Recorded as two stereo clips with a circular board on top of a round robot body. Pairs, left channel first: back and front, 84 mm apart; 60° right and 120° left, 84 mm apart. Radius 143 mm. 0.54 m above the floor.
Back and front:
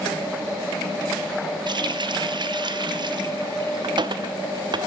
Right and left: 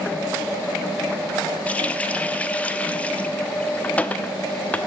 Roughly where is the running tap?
Ahead.